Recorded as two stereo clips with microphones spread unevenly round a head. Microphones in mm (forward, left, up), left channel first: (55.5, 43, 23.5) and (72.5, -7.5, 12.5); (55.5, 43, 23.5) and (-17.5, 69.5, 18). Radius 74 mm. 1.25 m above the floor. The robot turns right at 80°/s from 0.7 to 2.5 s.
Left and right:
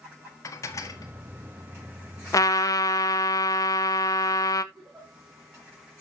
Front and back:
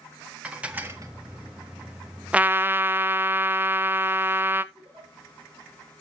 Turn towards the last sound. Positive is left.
turn(degrees=-160)